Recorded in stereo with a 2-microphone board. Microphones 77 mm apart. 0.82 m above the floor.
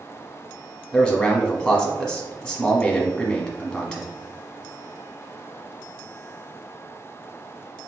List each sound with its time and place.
0.9 s a man speaking: 5° left (ahead or behind), 1.1 m